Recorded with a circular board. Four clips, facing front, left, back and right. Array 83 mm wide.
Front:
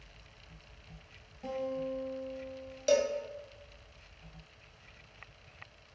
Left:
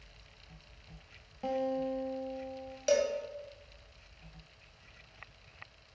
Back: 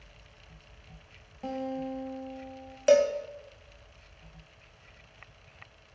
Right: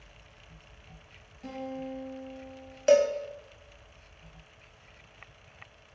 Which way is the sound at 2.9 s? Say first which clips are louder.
Right 7 dB, back 6 dB; 145° right.